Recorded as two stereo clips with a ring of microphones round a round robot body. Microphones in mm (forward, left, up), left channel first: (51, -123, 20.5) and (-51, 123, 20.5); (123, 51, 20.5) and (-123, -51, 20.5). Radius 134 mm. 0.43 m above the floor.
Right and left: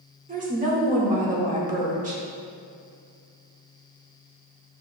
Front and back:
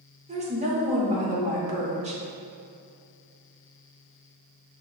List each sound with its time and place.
0.3 s a woman speaking: 155° left, 1.0 m